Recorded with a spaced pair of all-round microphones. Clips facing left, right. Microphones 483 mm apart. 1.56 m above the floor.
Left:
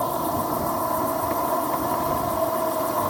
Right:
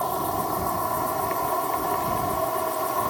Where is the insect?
60° left (ahead or behind).